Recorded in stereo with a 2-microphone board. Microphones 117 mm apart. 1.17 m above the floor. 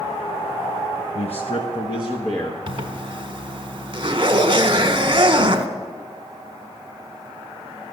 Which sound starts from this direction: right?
A zipper, at 2.7 s.